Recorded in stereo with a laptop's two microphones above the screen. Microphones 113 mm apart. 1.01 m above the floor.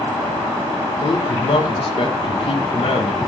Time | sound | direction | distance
1.0 | a man speaking | 50° left (ahead or behind) | 0.9 m